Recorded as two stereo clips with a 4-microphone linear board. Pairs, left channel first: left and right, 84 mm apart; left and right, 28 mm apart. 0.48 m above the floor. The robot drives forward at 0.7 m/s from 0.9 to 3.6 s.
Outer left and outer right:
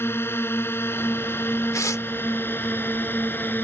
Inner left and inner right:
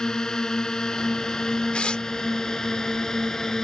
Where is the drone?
30° left (ahead or behind); by 3.6 s 25° left (ahead or behind).